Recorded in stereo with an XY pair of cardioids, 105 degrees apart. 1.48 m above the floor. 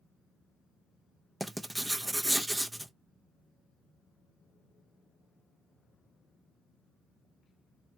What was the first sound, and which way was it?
Writing, 10° right.